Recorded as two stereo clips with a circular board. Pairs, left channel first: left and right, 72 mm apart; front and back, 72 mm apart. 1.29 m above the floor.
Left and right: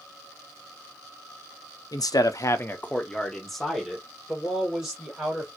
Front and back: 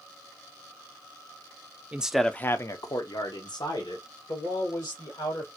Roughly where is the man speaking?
Left.